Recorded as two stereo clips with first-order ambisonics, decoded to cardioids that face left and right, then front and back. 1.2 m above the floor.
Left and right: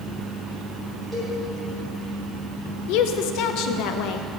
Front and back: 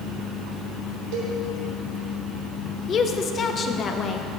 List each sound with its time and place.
1.1 s a cowbell: 170° right, 3 m
2.9 s a woman speaking: 65° left, 0.7 m